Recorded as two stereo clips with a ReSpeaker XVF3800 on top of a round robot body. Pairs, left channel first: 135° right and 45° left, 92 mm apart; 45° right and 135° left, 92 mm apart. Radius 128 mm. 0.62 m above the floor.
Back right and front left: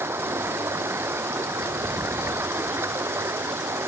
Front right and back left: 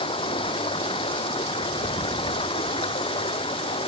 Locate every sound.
0.0 s running water: 20° right